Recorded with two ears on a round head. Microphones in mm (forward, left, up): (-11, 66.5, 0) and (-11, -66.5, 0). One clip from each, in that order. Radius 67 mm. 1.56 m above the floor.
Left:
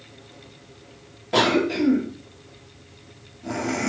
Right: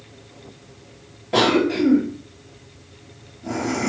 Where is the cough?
15° left (ahead or behind), 0.7 m.